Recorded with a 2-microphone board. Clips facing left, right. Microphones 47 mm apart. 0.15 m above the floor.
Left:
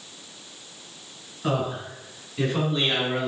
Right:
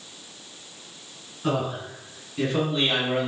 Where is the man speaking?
5° left (ahead or behind), 1.9 m; by 3.3 s 20° right (ahead or behind), 1.8 m.